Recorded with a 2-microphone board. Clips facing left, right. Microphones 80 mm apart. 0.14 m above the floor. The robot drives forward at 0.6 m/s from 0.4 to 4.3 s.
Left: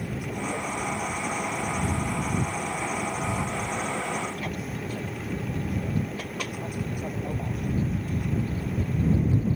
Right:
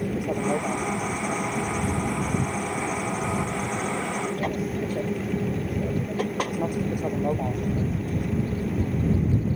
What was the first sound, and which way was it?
An aircraft, 45° right (ahead or behind).